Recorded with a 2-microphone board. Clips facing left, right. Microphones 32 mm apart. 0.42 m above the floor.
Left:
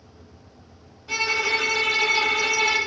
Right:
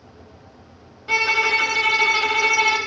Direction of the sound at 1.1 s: 55° right (ahead or behind).